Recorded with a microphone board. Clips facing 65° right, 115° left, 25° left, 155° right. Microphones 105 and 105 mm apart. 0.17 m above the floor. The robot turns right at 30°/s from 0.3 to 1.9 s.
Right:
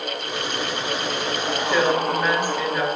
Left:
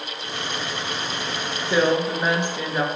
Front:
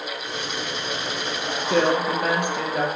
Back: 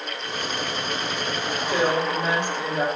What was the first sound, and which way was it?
A woman speaking, 40° left.